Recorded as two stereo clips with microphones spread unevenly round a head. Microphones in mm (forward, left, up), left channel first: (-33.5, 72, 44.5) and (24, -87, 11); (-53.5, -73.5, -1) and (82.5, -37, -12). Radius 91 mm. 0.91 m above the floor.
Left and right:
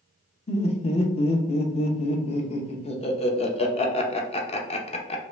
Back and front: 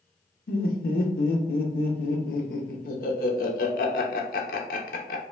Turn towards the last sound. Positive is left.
turn(degrees=165)